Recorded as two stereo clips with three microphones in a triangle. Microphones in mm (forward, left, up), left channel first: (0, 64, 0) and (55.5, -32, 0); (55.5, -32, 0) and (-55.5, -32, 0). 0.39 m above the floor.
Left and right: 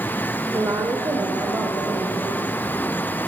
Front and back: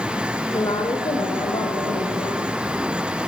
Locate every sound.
0.5 s a woman speaking: 15° right, 1.1 m; by 2.5 s 10° left, 2.5 m